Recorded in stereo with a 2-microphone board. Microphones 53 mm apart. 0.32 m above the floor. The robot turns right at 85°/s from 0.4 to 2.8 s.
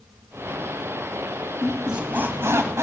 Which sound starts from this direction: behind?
A squeak, at 1.6 s.